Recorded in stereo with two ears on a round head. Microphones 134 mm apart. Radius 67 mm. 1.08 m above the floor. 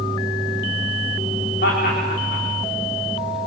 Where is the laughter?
70° left (ahead or behind), 3.5 m.